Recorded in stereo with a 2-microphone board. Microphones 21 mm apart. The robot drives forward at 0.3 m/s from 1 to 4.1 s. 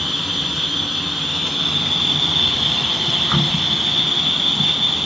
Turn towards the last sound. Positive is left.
turn(degrees=0)  # may be behind; listen again after turning